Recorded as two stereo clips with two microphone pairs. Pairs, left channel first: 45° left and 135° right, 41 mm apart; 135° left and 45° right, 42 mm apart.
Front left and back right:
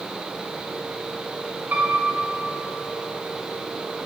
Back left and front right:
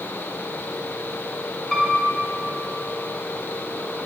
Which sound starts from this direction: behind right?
A piano, at 1.7 s.